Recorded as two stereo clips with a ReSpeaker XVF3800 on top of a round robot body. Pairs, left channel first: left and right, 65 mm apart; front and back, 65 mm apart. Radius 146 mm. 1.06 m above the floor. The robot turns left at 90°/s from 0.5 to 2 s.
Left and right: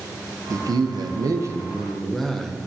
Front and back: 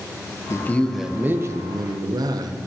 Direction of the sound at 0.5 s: 50° right.